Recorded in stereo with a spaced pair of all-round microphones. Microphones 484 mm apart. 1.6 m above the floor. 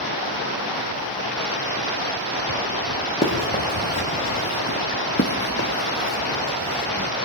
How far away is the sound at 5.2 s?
About 2 m.